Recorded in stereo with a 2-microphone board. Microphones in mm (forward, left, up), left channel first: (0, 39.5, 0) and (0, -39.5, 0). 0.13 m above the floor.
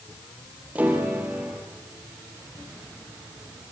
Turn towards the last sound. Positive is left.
turn(degrees=-20)  # may be behind; listen again after turning